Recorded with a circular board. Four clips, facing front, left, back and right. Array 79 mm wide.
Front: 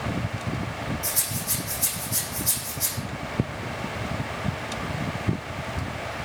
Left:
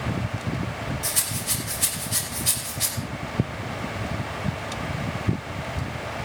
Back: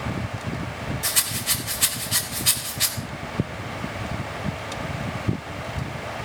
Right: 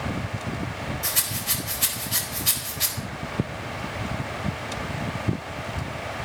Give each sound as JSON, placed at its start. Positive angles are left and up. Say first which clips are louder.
{"t": 1.0, "sound": "a rattle", "louder": "even, back 3 dB", "azimuth_deg": -165, "distance_m": 4.0}